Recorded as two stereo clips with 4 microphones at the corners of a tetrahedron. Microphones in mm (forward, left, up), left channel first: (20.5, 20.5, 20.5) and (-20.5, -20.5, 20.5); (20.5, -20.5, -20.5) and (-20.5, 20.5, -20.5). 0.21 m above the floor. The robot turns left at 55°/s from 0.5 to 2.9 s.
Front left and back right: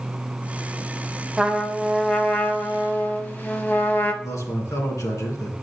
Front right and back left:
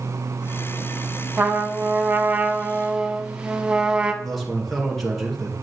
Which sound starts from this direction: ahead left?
A man speaking, at 4.2 s.